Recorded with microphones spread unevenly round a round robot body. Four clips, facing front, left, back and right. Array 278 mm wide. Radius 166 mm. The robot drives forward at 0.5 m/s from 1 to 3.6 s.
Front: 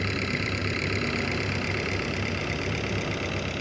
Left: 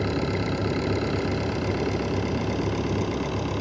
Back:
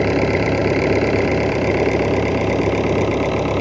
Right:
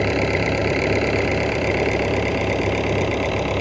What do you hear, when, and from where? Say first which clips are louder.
0.0 s an engine running: right 6 dB, back 14 dB; 160° right; by 3.6 s 165° right